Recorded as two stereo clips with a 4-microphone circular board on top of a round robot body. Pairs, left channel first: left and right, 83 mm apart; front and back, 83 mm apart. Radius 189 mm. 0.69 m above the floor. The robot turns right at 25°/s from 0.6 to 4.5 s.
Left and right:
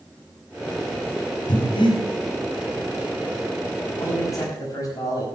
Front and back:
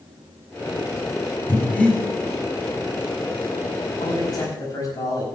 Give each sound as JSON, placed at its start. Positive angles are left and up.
{"t": 1.5, "sound": "breathing", "azimuth_deg": 65, "distance_m": 3.5}
{"t": 4.0, "sound": "a man speaking", "azimuth_deg": 35, "distance_m": 4.5}